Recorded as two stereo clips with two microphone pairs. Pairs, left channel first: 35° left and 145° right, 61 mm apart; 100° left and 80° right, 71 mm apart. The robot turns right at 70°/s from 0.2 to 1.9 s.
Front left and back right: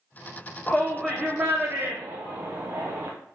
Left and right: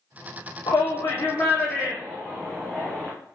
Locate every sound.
0.7 s a shout: 105° left, 0.7 m; by 3.1 s 170° right, 0.7 m